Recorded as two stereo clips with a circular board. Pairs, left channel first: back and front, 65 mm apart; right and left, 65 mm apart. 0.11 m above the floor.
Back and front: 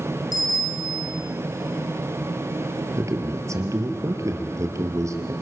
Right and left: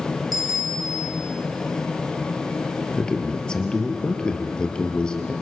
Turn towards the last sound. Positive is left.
turn(degrees=-15)